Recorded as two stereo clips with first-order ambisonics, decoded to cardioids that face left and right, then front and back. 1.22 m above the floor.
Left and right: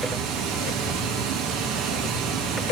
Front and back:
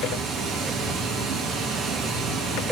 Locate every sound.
0.0 s running water: 120° right, 0.8 m